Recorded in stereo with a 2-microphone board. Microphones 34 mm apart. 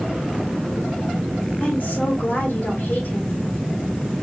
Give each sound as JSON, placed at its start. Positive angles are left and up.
{"t": 1.6, "sound": "a woman speaking", "side_deg": 65, "distance_m": 2.0}